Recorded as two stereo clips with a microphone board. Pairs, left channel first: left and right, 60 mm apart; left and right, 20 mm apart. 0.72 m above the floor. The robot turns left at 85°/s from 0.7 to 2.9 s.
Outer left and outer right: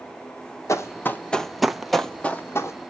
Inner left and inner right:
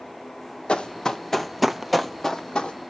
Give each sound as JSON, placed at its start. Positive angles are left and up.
{"t": 0.7, "sound": "running footsteps", "side_deg": 50, "distance_m": 1.1}